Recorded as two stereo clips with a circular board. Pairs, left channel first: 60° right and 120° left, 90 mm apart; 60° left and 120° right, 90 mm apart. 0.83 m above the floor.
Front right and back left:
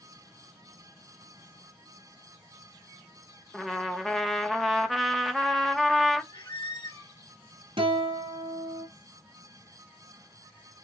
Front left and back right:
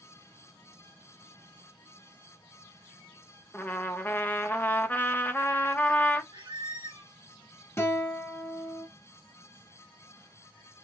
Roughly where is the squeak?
Right.